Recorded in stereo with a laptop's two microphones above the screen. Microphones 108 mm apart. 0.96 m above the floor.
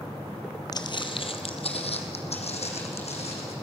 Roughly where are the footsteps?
Left.